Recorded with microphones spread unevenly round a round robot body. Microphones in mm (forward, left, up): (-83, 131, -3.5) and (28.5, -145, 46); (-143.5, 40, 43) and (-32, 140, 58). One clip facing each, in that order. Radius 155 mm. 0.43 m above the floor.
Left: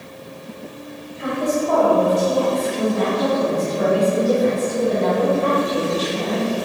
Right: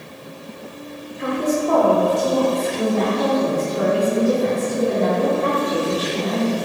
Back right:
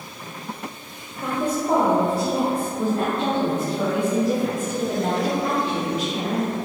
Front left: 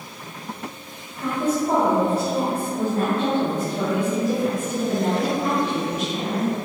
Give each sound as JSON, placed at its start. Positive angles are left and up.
{"t": 1.2, "sound": "a woman speaking", "azimuth_deg": -65, "distance_m": 1.1}